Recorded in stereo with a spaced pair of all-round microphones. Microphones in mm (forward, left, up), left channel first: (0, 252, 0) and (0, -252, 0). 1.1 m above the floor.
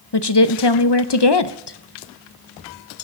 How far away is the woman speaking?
About 0.7 m.